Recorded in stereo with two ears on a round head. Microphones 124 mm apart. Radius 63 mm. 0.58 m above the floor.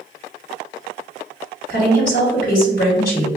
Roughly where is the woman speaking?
Left.